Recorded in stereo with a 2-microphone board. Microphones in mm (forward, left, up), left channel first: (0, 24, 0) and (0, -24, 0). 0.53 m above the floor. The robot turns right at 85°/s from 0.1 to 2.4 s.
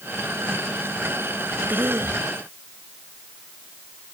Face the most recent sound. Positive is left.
turn(degrees=-75)